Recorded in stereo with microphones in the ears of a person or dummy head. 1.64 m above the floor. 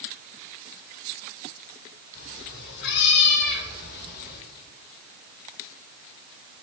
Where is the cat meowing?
65° left (ahead or behind), 3 m; by 4.4 s 55° left (ahead or behind), 3 m.